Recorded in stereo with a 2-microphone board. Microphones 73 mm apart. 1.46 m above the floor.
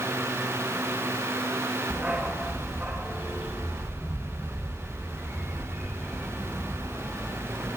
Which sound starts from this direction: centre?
A dog barking, at 1.9 s.